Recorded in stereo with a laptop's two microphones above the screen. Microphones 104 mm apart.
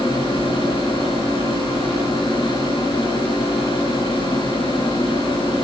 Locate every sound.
0.0 s a fan: 65° left (ahead or behind), 4.5 m